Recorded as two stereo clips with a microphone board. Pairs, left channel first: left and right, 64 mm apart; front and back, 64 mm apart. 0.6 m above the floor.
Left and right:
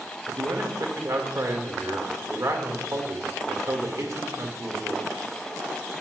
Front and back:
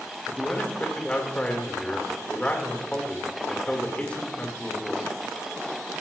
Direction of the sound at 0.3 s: 70° right.